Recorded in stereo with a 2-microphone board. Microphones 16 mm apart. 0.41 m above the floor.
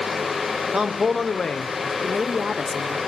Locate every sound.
0.7 s a man speaking: 35° right (ahead or behind), 0.9 m; by 1.9 s 55° left (ahead or behind), 1.6 m
2.0 s a woman speaking: 30° right (ahead or behind), 0.9 m